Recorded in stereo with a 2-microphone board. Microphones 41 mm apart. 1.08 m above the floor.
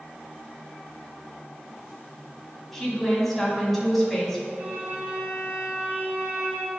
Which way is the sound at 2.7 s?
5° left (ahead or behind).